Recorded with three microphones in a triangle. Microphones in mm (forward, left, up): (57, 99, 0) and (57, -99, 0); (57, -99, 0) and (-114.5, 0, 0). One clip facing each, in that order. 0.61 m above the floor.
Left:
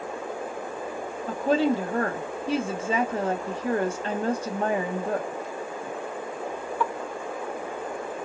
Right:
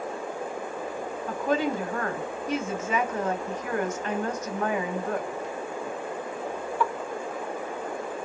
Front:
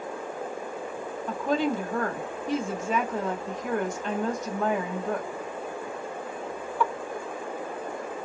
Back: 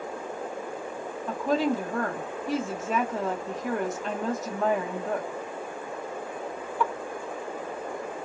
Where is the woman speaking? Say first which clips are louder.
Left 4 dB, back 1 dB; 65° left, 1.1 m.